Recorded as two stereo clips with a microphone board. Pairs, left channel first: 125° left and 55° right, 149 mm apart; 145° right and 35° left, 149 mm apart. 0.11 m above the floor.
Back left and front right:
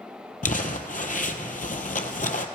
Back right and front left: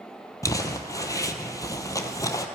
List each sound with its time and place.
0.4 s crumpling: 145° left, 0.7 m